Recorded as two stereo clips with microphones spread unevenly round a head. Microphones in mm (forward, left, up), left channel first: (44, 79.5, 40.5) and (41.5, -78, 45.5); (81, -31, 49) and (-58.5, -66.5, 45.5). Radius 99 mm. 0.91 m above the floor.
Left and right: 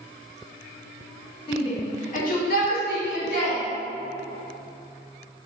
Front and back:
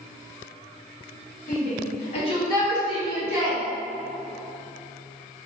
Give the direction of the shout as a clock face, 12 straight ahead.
11 o'clock.